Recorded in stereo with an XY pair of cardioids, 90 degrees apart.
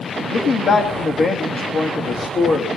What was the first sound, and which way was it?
A man speaking, 60° left.